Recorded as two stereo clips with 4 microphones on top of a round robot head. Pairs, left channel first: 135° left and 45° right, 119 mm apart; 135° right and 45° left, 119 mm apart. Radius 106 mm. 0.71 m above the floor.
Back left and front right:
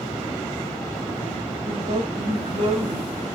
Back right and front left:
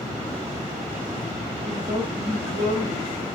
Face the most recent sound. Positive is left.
turn(degrees=-10)